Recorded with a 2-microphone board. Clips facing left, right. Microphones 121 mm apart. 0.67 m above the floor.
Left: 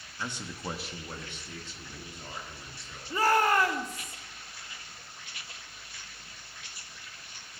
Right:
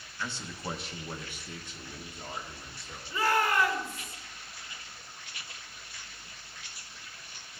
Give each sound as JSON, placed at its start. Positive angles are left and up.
{"t": 0.2, "sound": "a man speaking", "side_deg": 20, "distance_m": 0.8}
{"t": 3.1, "sound": "a shout", "side_deg": 40, "distance_m": 1.2}